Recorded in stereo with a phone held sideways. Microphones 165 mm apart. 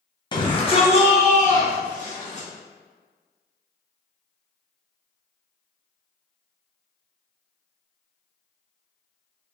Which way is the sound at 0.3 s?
25° left (ahead or behind).